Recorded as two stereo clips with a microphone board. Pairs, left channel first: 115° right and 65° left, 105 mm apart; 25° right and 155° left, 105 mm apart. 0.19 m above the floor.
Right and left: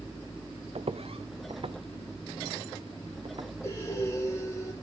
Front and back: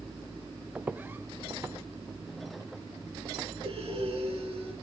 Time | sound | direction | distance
0.8 | footsteps | 80° left | 0.7 m
3.6 | breathing | 175° right | 7.5 m